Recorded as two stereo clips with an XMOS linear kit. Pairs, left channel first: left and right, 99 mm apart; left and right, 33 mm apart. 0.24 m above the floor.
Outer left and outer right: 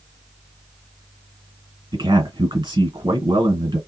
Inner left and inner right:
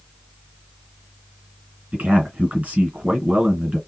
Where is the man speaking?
45° right (ahead or behind), 2 m.